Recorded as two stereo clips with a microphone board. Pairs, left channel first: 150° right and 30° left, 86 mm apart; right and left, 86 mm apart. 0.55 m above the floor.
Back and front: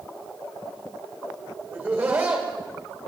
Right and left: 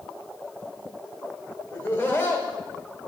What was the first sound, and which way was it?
Laughter, 30° right.